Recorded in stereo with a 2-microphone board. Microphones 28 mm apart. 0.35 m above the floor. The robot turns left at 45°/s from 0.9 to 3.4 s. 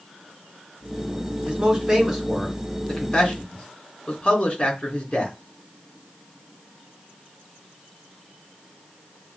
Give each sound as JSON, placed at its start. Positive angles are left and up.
{"t": 1.5, "sound": "a man speaking", "side_deg": -30, "distance_m": 3.5}